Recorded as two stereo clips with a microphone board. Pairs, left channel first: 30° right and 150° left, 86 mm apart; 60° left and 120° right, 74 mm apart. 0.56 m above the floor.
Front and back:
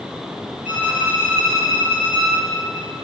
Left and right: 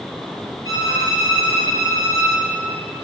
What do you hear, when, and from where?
0.7 s a violin: 140° right, 2.5 m